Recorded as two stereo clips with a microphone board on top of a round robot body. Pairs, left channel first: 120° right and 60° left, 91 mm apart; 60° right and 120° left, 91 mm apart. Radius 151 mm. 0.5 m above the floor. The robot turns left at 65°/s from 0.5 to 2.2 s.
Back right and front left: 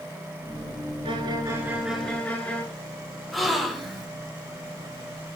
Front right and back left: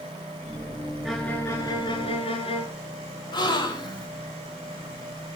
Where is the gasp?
30° right, 2.5 m.